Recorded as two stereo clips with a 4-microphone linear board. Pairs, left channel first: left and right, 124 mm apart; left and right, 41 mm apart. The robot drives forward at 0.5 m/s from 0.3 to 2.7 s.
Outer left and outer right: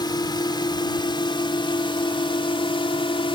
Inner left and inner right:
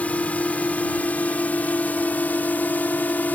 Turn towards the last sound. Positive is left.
turn(degrees=40)  # may be behind; listen again after turning